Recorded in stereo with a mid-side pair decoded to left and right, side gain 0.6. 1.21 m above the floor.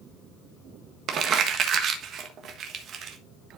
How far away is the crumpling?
About 1.3 m.